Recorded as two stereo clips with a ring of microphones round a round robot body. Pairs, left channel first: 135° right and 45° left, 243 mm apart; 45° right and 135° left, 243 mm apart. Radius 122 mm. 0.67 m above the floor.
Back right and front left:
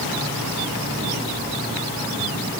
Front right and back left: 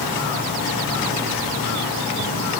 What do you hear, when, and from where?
Only background noise.